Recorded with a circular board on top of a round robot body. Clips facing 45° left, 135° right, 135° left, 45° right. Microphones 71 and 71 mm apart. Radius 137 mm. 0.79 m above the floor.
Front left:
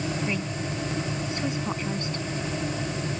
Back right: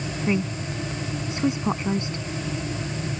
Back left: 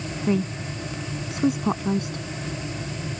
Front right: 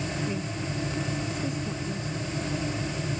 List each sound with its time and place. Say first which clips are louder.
0.3 s a woman speaking: back right 4 dB, back left 7 dB; 155° left